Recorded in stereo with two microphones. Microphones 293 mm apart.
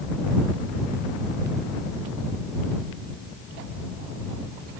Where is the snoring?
I don't hear snoring.